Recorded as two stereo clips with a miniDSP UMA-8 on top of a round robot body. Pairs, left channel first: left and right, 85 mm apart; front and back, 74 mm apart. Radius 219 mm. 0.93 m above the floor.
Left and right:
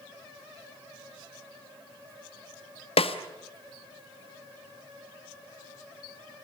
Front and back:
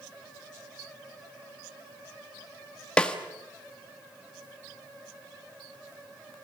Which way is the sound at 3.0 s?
80° left.